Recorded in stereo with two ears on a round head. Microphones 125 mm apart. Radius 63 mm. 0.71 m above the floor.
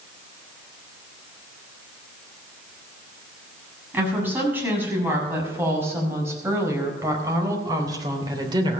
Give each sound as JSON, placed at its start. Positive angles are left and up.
{"t": 3.9, "sound": "a woman speaking", "side_deg": -15, "distance_m": 7.0}